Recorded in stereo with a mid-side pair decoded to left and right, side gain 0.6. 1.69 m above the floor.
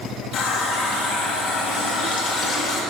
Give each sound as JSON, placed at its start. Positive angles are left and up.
{"t": 0.3, "sound": "a running tap", "azimuth_deg": 50, "distance_m": 2.0}